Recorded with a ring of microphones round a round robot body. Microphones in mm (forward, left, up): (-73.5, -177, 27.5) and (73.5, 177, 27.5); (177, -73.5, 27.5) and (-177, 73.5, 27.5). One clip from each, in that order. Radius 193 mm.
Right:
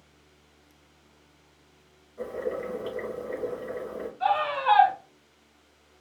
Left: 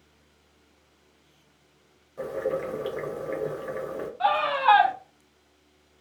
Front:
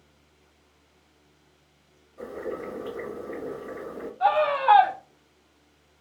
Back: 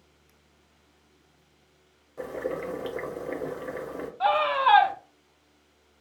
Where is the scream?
95° left, 1.3 m.